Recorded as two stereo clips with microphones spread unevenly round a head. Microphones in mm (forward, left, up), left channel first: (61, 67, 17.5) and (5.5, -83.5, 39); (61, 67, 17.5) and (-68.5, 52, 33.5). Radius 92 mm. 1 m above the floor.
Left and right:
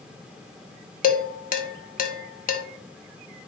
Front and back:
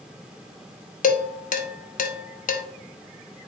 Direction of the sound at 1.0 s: 30° left.